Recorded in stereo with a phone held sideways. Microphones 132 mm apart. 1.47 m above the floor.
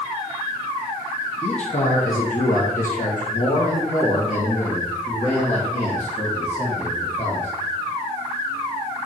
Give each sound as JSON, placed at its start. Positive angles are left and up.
{"t": 1.4, "sound": "a man speaking", "side_deg": 55, "distance_m": 1.1}